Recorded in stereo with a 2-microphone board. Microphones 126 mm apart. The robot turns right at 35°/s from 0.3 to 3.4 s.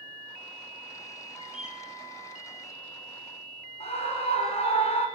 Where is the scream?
55° left (ahead or behind), 6.5 m.